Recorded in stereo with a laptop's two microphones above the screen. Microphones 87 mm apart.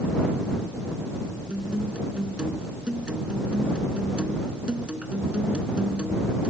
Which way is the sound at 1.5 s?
10° right (ahead or behind).